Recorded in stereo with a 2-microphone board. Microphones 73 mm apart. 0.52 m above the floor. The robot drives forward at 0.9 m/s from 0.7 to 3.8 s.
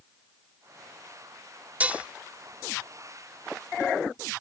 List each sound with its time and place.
1.8 s dishes clattering: 20° right (ahead or behind); by 2.1 s 15° right (ahead or behind)